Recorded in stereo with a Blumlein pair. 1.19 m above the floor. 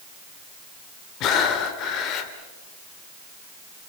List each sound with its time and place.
1.2 s breathing: 35° left, 2.5 m